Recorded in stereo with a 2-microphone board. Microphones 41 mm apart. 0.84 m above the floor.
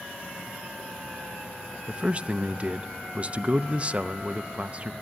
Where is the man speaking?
30° right (ahead or behind), 0.5 m.